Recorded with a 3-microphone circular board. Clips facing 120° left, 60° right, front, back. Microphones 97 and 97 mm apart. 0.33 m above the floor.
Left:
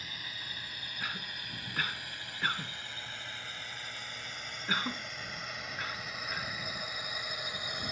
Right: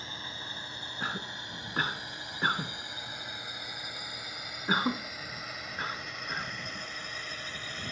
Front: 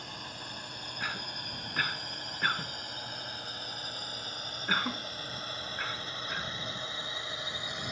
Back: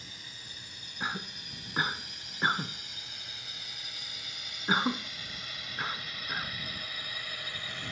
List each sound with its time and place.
0.0 s a drone: 5° right; by 7.9 s 55° left
1.0 s a cough: 115° right